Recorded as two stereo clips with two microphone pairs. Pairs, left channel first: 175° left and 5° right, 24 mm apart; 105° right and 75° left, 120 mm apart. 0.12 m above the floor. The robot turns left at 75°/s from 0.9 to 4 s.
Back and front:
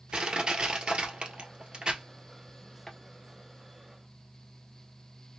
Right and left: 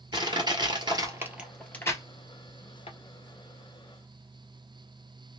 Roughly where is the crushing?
Ahead left.